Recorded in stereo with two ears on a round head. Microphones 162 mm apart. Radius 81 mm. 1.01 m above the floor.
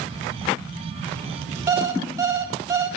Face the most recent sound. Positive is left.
turn(degrees=-20)  # may be behind; listen again after turning